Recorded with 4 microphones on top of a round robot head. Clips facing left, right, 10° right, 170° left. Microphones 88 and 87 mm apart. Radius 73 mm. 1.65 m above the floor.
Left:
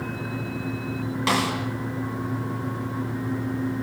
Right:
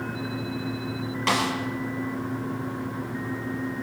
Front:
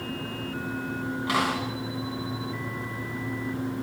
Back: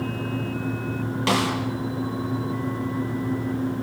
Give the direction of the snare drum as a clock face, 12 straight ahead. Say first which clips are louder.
Left 1 dB, back 3 dB; 6 o'clock.